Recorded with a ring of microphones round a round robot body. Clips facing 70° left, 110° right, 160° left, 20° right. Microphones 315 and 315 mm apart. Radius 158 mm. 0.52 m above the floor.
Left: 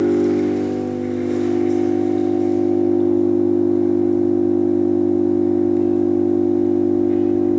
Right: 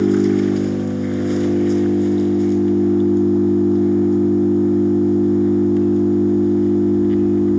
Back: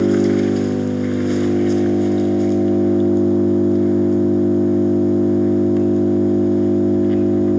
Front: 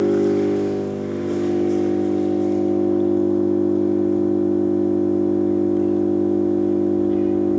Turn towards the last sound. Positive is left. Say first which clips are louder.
# right 1 dB, back 2 dB
turn(degrees=-165)